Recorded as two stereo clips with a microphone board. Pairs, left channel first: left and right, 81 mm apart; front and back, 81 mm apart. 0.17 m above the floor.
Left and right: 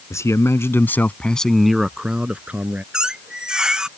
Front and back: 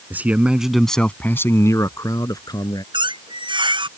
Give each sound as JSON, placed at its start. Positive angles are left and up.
{"t": 0.1, "sound": "a man speaking", "azimuth_deg": 125}
{"t": 2.9, "sound": "a squeak", "azimuth_deg": -170}